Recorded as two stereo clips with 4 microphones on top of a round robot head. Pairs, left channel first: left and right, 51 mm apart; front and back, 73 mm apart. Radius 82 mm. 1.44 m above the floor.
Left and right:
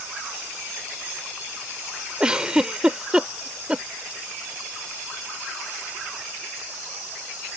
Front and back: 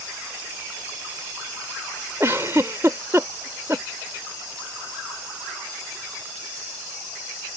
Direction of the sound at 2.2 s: 140° right.